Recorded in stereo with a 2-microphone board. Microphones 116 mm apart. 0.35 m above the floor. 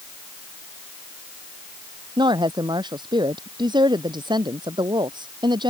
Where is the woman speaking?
40° right (ahead or behind).